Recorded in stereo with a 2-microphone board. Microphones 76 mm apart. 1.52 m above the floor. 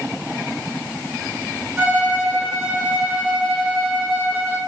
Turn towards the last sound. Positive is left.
turn(degrees=-30)  # may be behind; listen again after turning